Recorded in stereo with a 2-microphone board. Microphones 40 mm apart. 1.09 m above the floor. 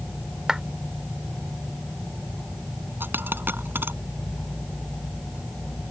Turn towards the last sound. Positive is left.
turn(degrees=-65)  # may be behind; listen again after turning